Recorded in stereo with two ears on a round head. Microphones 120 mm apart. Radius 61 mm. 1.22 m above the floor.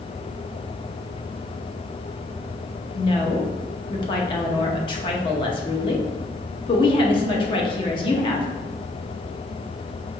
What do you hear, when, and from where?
3.0 s a woman speaking: 40° left (ahead or behind), 0.7 m